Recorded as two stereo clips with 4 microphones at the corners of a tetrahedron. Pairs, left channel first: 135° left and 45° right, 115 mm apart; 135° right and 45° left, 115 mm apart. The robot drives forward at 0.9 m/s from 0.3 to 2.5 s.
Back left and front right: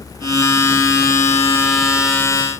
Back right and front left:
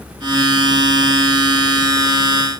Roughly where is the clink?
No clink in this recording.